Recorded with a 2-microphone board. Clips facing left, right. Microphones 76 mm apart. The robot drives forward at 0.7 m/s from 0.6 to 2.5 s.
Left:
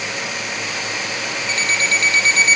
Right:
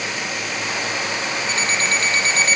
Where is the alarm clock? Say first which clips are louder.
Left 3 dB; 30° right (ahead or behind), 2.5 m; by 2.6 s 40° right (ahead or behind), 1.9 m.